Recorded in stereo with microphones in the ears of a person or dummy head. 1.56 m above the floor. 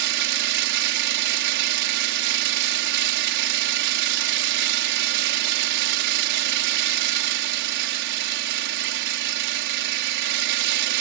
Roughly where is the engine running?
Right.